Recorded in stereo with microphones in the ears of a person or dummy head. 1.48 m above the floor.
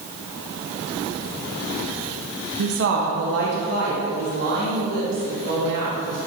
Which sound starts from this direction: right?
A woman speaking, at 2.6 s.